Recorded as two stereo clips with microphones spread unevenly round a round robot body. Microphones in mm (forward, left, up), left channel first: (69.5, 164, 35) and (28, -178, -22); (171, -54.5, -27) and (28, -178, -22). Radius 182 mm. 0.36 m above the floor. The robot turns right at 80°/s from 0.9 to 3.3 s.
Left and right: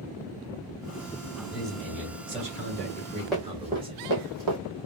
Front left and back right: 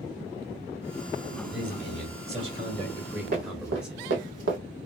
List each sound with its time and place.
1.5 s a man speaking: 160° left, 1.2 m; by 4.0 s 55° right, 1.2 m
3.3 s running footsteps: 170° left, 0.9 m; by 4.6 s 135° right, 1.1 m